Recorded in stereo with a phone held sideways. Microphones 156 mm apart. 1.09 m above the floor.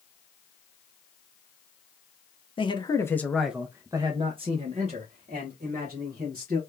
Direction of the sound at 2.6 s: 35° left (ahead or behind).